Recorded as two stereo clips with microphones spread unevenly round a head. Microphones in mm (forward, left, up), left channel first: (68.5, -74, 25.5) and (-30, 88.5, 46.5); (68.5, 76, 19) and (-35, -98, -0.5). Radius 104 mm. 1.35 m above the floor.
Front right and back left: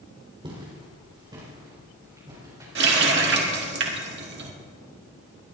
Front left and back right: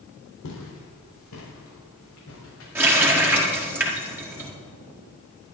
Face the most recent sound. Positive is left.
turn(degrees=155)